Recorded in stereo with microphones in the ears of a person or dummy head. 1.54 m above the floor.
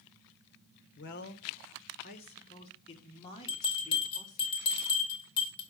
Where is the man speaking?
55° left (ahead or behind), 1.1 m; by 4.5 s 25° left (ahead or behind), 3 m.